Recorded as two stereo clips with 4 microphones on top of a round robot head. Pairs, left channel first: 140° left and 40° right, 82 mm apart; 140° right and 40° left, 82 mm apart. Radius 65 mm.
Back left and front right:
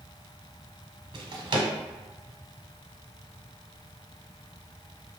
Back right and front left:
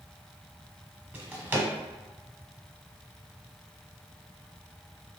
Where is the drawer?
25° right, 0.7 m.